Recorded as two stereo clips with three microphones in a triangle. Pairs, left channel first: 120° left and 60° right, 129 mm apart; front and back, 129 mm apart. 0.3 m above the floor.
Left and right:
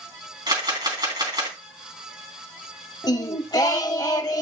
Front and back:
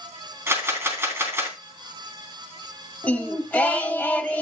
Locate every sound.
0.5 s a camera shutter: 110° right, 3 m
3.0 s singing: 70° left, 0.9 m